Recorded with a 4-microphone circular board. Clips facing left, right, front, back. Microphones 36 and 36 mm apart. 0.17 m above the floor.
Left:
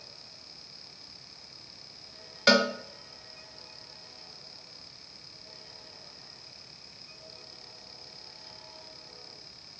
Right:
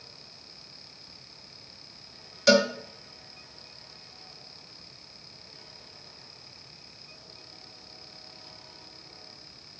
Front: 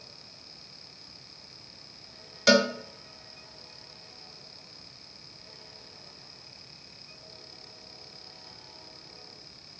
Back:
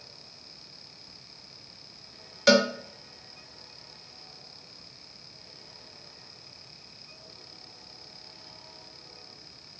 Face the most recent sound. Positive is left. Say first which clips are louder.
# right 2 dB, back 1 dB
turn(degrees=95)